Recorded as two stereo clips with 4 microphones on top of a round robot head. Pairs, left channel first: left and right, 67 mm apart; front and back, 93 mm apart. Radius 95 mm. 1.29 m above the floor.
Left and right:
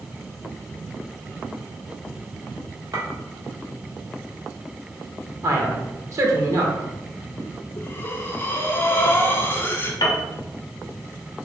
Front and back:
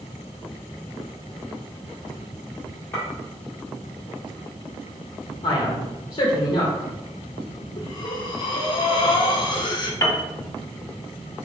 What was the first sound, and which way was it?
A clink, 70° right.